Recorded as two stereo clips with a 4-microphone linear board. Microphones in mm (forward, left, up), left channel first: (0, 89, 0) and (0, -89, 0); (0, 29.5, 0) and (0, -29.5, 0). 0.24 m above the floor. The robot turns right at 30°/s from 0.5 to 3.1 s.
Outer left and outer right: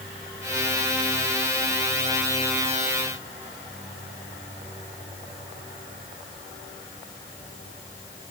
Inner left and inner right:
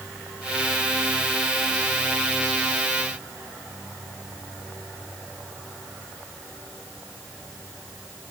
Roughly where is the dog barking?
I don't hear a dog barking.